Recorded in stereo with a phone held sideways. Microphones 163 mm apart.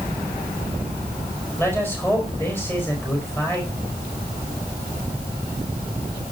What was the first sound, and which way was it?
A man speaking, 15° left (ahead or behind).